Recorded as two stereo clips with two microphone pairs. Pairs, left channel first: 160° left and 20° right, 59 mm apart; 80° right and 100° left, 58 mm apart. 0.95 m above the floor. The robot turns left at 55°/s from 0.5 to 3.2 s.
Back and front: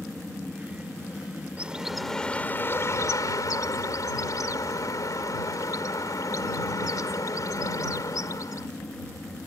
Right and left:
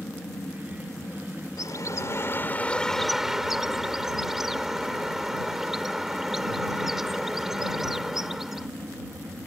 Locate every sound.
0.0 s an aircraft: 95° right; by 9.5 s 115° left
1.6 s a bird: 90° right; by 8.7 s 175° right